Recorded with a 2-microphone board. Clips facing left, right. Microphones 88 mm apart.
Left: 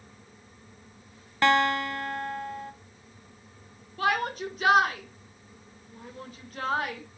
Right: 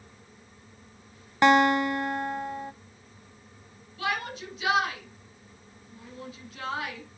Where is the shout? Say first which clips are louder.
Left 5 dB; 45° left (ahead or behind), 1.7 m.